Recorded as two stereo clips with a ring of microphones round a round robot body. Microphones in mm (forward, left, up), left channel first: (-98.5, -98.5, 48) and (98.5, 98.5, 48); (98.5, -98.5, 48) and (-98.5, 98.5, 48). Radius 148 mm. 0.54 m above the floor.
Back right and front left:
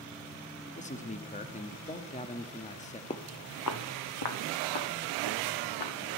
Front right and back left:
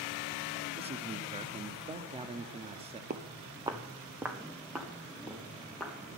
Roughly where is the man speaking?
Behind.